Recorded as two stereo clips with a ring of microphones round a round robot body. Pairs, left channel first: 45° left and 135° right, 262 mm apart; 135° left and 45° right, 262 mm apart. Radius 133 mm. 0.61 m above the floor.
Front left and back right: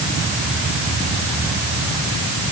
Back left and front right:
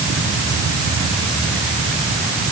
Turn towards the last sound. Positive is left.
No sound to turn to.